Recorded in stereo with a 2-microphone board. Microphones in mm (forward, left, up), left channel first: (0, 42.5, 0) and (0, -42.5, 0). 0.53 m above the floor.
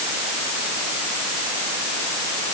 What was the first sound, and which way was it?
Only background noise.